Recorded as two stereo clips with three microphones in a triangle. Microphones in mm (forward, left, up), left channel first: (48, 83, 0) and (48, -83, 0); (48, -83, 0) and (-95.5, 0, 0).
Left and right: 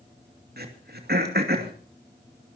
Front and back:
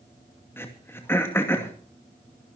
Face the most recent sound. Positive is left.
turn(degrees=-105)